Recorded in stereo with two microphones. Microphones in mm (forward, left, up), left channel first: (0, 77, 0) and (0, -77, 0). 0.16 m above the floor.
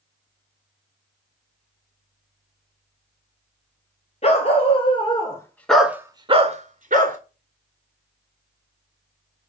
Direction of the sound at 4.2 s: 45° left (ahead or behind).